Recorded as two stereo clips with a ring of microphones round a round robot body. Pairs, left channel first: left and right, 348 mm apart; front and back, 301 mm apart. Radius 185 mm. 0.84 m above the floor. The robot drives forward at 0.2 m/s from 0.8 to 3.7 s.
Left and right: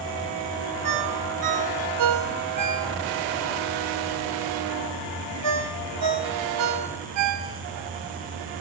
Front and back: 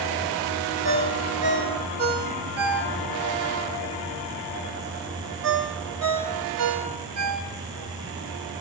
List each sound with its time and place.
0.8 s a ringtone: 125° right, 2.5 m; by 7.9 s 135° right, 3 m